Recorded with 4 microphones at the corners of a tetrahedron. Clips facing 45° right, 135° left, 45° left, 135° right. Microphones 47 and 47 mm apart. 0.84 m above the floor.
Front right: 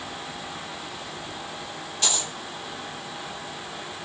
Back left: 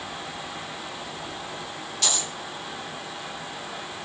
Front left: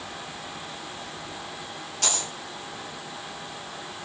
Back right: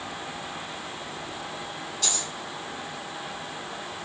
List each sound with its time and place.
2.0 s a dropped coin: 20° left, 3 m